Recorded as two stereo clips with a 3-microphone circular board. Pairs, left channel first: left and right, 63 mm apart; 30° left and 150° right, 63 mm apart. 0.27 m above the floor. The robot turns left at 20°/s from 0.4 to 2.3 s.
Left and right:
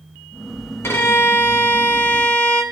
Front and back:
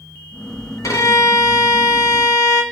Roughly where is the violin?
Ahead left.